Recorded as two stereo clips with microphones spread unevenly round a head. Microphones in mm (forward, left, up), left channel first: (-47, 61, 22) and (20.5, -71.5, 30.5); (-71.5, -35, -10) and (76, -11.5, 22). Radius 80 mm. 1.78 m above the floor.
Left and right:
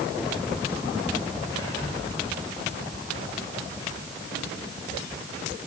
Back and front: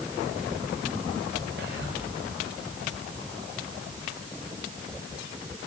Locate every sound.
1.6 s whispering: 45° left, 2 m